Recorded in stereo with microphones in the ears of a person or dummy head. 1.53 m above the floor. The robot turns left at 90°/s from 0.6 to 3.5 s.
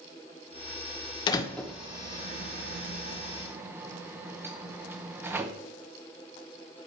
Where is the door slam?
30° left (ahead or behind), 0.8 m; by 5.5 s 10° right (ahead or behind), 0.8 m.